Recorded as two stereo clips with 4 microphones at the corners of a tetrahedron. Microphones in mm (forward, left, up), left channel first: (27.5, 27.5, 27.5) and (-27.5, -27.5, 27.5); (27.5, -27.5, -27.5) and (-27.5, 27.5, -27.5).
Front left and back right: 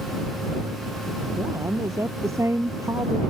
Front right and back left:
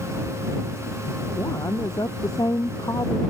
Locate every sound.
1.4 s a woman speaking: 85° right